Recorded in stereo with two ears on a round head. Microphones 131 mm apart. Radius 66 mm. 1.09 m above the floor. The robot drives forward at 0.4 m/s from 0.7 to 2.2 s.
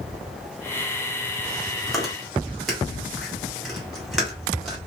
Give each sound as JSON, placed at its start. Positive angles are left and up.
{"t": 1.9, "sound": "chewing", "side_deg": 0, "distance_m": 1.8}